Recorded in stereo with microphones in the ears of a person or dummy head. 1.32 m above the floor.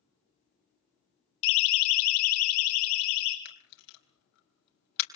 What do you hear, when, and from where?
1.4 s a siren: 70° left (ahead or behind), 3 m
3.5 s a camera shutter: 60° left (ahead or behind), 4 m